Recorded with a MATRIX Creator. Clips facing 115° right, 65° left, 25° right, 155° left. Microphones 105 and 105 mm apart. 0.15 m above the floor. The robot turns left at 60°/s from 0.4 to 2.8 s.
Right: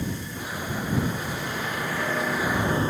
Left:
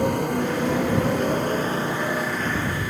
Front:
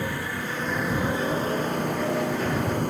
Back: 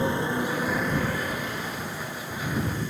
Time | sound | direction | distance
0.0 | a motorcycle | 90° left | ?